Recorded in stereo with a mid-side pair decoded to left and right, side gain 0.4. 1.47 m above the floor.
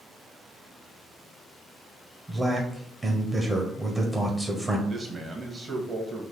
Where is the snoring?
I don't hear snoring.